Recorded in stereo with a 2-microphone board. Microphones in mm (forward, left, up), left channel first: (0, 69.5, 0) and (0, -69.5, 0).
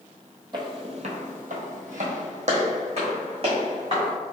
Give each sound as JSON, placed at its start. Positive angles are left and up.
{"t": 0.5, "sound": "footsteps", "side_deg": -35, "distance_m": 0.6}